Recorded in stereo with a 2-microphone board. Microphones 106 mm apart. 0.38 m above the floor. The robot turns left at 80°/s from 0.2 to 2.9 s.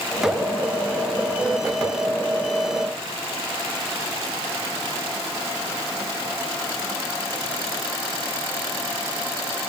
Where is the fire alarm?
I don't hear a fire alarm.